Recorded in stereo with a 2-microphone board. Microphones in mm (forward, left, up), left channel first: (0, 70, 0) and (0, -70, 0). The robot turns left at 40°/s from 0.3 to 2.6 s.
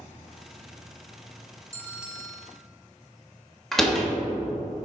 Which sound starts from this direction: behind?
A bell, at 1.7 s.